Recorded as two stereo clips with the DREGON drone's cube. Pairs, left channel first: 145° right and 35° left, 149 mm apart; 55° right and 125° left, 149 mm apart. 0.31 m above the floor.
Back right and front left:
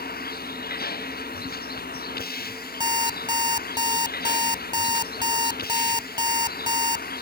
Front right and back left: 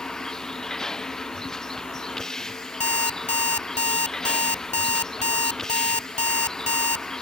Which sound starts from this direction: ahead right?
An alarm clock, at 2.8 s.